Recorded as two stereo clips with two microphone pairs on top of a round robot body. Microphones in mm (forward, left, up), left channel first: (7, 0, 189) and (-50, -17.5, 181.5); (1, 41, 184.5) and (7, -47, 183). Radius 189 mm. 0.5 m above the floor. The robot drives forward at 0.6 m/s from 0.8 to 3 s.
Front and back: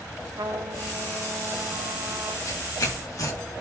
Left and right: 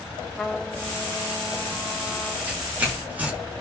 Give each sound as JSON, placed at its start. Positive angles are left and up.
{"t": 0.4, "sound": "a trumpet", "azimuth_deg": 175, "distance_m": 2.0}
{"t": 2.5, "sound": "tearing paper", "azimuth_deg": -15, "distance_m": 7.0}